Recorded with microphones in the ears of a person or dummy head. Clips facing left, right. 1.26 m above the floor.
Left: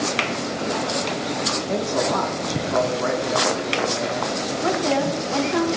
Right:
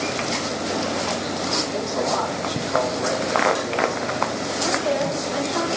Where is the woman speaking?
70° left (ahead or behind), 3 m.